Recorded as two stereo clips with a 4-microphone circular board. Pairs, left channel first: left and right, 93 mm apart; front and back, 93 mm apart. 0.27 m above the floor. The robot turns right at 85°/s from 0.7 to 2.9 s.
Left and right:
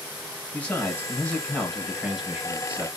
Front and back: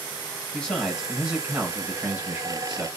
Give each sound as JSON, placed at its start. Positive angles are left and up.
{"t": 0.5, "sound": "a man speaking", "azimuth_deg": 65, "distance_m": 1.2}